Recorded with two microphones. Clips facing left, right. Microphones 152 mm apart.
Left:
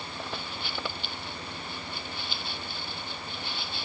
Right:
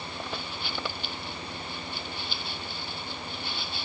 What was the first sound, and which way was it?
Only background noise.